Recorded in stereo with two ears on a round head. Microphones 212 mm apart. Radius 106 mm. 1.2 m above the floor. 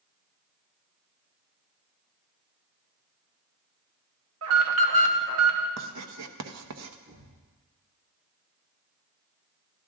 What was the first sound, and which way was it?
An alarm, 70° right (ahead or behind).